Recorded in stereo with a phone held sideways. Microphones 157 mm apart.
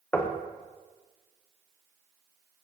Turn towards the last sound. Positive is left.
turn(degrees=15)  # may be behind; listen again after turning